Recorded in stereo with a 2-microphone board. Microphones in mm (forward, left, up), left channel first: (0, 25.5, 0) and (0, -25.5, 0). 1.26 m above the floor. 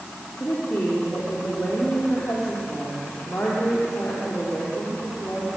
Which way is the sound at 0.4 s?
45° left (ahead or behind).